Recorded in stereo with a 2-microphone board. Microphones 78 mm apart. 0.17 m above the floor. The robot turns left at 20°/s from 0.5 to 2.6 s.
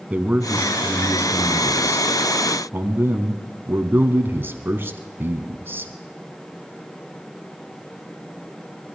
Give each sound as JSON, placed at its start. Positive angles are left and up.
{"t": 0.1, "sound": "a man speaking", "side_deg": -20, "distance_m": 1.2}